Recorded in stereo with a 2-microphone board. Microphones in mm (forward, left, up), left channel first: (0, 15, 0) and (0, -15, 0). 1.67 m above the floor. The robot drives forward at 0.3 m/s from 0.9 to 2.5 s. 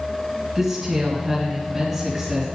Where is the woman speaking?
10° right (ahead or behind), 2.5 m; by 2.5 s 5° right (ahead or behind), 3 m.